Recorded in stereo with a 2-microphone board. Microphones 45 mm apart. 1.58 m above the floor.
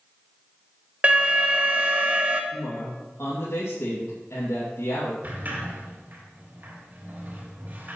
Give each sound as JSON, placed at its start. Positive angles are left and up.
{"t": 1.0, "sound": "an alarm", "side_deg": -25, "distance_m": 1.0}
{"t": 2.5, "sound": "a man speaking", "side_deg": 80, "distance_m": 2.5}
{"t": 5.2, "sound": "a sliding door", "side_deg": -40, "distance_m": 3.0}